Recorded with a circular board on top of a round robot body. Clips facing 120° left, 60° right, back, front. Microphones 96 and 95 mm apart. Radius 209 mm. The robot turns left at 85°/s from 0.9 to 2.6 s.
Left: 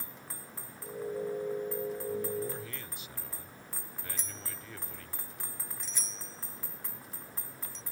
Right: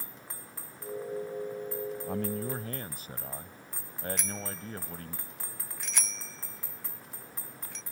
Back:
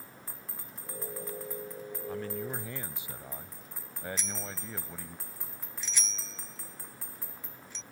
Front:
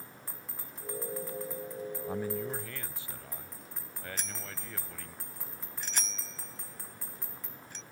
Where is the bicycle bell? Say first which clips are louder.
Right 8 dB, back 3 dB; 40° right.